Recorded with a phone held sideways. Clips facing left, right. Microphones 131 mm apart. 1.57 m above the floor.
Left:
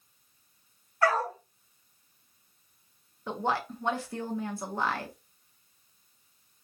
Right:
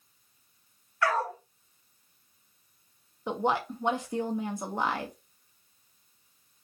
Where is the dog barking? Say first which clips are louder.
Left 2 dB; 35° left (ahead or behind), 1.5 m.